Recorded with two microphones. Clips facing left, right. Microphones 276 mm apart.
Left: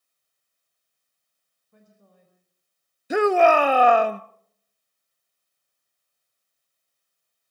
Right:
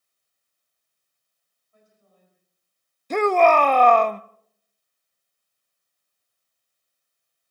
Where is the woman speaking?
65° left (ahead or behind), 4 m.